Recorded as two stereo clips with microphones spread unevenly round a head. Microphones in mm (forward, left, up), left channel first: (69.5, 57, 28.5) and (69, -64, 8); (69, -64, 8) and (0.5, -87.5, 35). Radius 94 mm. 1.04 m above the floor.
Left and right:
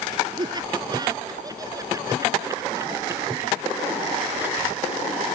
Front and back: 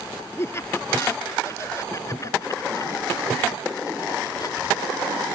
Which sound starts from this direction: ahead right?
Laughter, at 0.4 s.